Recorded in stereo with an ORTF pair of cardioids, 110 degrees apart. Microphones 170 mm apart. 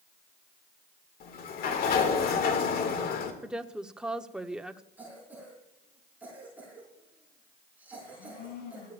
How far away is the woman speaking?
About 1.0 m.